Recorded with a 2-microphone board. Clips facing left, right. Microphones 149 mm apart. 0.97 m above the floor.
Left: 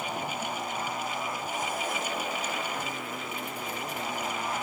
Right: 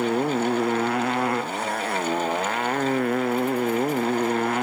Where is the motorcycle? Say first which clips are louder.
Right 12 dB; 75° right (ahead or behind); by 4.6 s 65° right (ahead or behind).